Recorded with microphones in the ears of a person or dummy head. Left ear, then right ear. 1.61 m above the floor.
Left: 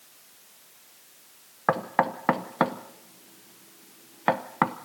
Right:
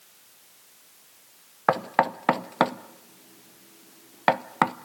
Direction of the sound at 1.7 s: 25° right (ahead or behind).